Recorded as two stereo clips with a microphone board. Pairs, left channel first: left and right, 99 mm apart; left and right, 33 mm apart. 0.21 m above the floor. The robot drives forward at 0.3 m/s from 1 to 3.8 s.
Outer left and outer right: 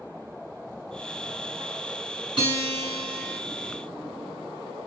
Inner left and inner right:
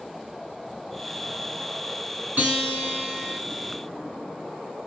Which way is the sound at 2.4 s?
50° right (ahead or behind).